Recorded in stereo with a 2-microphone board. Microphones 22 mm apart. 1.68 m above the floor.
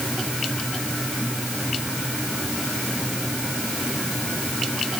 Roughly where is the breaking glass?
I don't hear breaking glass.